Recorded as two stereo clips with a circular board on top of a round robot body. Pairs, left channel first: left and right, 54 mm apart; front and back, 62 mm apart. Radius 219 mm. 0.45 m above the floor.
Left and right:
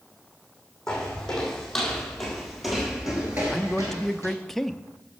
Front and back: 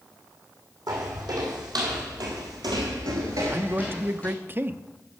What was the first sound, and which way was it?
Footsteps, 170° left.